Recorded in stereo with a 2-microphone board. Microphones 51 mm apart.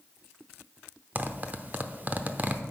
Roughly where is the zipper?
Right.